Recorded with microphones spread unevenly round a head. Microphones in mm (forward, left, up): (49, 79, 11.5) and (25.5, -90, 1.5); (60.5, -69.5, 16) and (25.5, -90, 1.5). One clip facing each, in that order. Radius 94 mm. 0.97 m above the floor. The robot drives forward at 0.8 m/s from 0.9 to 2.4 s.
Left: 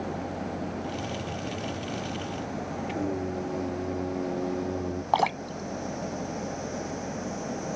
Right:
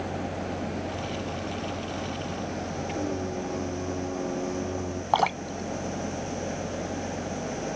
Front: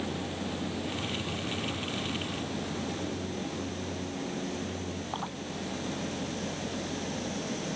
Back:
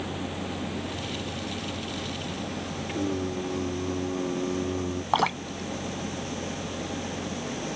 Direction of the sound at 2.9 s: 165° left.